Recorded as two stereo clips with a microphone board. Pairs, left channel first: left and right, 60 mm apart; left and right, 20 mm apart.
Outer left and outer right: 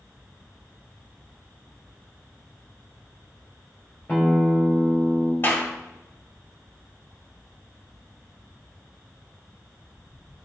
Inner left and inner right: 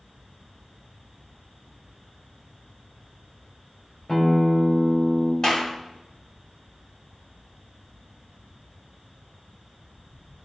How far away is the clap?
About 2 m.